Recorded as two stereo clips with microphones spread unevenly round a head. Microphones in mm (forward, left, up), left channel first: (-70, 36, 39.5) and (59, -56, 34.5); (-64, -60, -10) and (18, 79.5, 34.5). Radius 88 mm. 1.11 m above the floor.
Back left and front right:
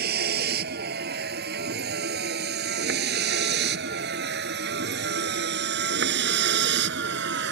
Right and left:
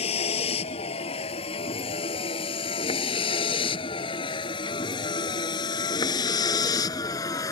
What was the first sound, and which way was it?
A vehicle, 60° right.